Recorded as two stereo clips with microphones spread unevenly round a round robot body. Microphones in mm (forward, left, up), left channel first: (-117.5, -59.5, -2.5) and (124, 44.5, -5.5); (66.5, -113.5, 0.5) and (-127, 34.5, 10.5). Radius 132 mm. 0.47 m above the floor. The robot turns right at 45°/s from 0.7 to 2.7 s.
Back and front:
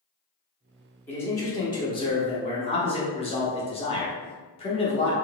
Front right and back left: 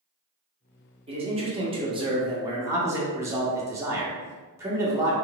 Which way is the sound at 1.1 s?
135° left.